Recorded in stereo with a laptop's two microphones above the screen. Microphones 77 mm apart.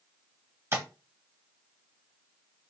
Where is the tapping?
35° right (ahead or behind), 1.3 m.